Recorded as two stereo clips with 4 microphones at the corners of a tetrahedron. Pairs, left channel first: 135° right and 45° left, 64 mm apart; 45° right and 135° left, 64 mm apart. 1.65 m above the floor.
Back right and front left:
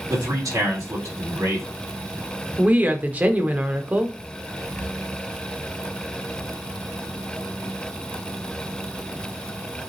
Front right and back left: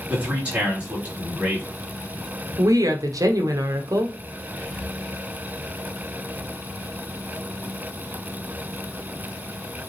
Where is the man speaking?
65° left, 3.5 m.